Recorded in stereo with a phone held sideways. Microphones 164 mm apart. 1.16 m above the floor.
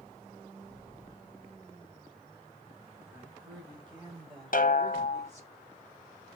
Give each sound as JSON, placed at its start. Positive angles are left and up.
{"t": 3.1, "sound": "a woman speaking", "side_deg": -25, "distance_m": 6.0}
{"t": 4.5, "sound": "a snare drum", "side_deg": 60, "distance_m": 0.9}